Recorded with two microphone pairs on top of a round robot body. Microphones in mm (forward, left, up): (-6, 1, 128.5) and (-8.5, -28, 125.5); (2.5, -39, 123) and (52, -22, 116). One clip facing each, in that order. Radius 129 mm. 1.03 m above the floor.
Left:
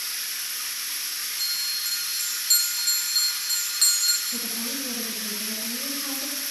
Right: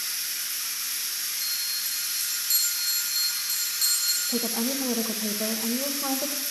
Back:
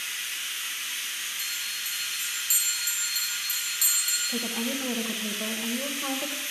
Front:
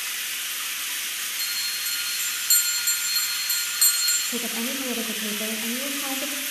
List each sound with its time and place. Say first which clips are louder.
0.0 s running water: left 1 dB, front 2 dB; 30° left, 1.4 m
1.4 s a bell: left 4 dB, front 3 dB; 45° left, 1.0 m
4.3 s a woman speaking: right 3 dB, front 1 dB; 70° right, 1.0 m